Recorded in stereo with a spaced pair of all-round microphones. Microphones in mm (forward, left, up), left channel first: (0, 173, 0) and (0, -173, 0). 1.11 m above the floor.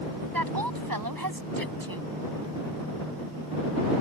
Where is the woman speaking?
80° right.